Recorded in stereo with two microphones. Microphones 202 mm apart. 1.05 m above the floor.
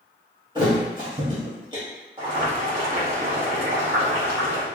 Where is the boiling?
25° right (ahead or behind), 1.3 m.